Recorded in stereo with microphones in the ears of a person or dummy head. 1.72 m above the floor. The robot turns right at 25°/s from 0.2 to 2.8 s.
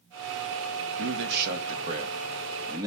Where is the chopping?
I don't hear chopping.